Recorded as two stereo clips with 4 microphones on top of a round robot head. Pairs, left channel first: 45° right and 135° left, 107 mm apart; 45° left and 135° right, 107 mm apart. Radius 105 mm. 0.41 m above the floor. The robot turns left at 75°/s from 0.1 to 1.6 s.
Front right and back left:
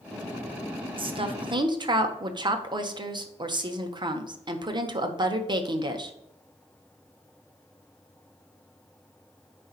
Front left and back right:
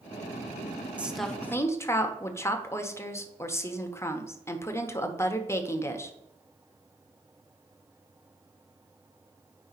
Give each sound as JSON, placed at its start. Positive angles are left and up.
{"t": 1.0, "sound": "a woman speaking", "azimuth_deg": 150, "distance_m": 1.2}